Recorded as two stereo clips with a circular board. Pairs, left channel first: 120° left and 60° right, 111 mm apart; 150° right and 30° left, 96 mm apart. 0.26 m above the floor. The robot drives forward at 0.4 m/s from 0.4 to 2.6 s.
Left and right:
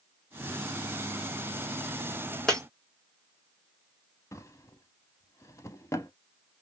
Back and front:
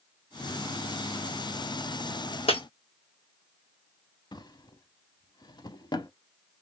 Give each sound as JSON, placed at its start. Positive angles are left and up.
{"t": 2.5, "sound": "breaking glass", "azimuth_deg": -155, "distance_m": 1.5}
{"t": 4.3, "sound": "a drawer", "azimuth_deg": 180, "distance_m": 0.6}